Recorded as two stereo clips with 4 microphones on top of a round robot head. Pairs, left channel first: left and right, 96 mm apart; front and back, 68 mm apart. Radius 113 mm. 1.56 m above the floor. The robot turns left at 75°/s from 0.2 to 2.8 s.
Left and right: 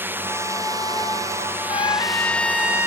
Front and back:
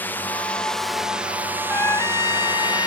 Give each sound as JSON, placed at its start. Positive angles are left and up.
{"t": 0.0, "sound": "a drone", "azimuth_deg": -35}
{"t": 1.7, "sound": "a trumpet", "azimuth_deg": 65}